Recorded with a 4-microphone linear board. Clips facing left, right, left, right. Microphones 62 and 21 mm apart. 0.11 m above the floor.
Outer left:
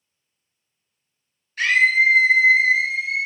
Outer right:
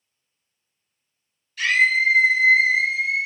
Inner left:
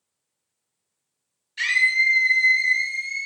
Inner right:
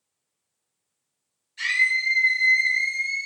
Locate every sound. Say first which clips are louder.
1.6 s a scream: outer left 2 dB, inner left 3 dB; 40° left (ahead or behind), 1.4 m; by 3.3 s 5° left (ahead or behind), 1.1 m